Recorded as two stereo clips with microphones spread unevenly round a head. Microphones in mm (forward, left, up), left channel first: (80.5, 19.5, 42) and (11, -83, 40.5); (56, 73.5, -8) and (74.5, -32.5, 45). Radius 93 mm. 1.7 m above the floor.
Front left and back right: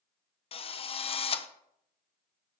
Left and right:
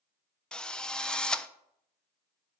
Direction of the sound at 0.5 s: 15° left.